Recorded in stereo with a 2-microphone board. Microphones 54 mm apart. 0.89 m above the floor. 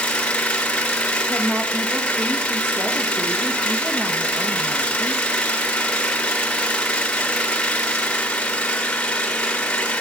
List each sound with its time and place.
0.0 s an engine running: 20° left (ahead or behind), 0.9 m
1.3 s a woman speaking: 40° right (ahead or behind), 1.1 m